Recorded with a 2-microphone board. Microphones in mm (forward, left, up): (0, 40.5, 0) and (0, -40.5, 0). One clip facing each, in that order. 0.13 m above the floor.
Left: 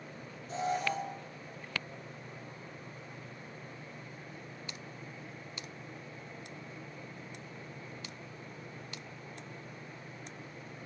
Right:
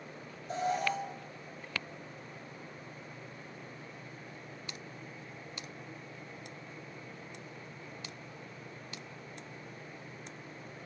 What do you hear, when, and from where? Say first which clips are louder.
0.5 s an alarm: right 1 dB; 45° right (ahead or behind), 2.5 m